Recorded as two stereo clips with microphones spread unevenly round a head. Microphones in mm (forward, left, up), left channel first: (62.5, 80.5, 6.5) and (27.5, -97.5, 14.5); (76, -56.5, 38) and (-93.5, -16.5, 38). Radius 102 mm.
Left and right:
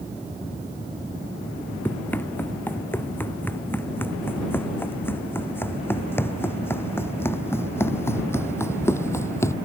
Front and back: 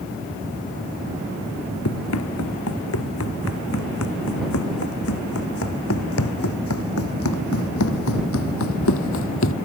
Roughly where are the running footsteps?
Ahead.